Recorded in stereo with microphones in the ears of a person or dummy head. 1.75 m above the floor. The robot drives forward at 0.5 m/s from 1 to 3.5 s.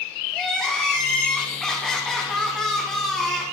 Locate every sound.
0.3 s crying: 5° left (ahead or behind), 1.4 m; by 3.4 s centre (ahead or behind), 2 m